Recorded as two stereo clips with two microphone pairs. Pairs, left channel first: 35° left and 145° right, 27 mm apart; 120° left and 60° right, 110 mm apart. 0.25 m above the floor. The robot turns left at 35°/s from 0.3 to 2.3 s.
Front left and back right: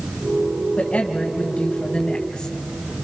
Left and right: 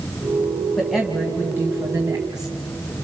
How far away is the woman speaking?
About 1.9 m.